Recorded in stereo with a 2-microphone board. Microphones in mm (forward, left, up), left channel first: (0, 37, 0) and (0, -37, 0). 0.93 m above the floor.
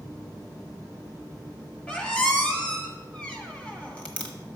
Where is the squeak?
20° left (ahead or behind), 1.2 m.